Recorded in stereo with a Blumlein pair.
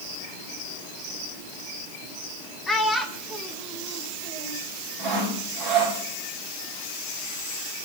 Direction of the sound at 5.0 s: 40° right.